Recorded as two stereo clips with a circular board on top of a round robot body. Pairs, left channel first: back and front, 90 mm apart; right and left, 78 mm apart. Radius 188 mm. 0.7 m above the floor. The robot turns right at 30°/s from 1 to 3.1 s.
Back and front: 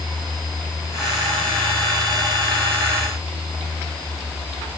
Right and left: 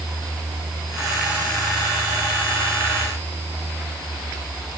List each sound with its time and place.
Only background noise.